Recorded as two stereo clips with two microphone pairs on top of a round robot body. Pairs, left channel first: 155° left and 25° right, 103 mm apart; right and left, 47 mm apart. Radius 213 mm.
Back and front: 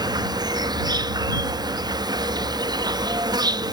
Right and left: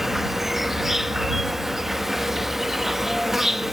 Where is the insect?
Straight ahead.